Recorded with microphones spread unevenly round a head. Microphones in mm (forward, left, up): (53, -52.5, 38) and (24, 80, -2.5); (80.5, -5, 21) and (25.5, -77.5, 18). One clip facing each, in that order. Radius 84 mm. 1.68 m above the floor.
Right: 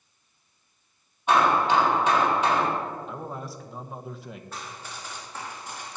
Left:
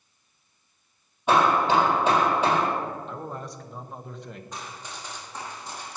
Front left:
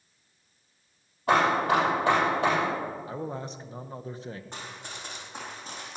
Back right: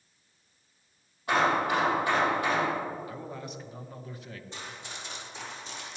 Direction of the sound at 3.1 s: Straight ahead.